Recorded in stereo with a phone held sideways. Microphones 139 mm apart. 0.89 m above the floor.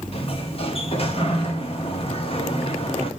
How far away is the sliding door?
About 1.1 m.